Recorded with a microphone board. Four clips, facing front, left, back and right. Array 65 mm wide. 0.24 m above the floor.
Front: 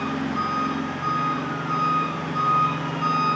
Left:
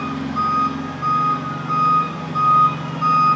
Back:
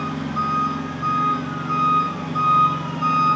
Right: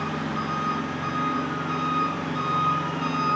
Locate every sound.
0.0 s an engine running: 90° left, 9 m